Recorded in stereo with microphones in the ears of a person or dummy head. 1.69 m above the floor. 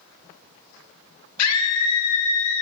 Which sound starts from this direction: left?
A scream, at 1.4 s.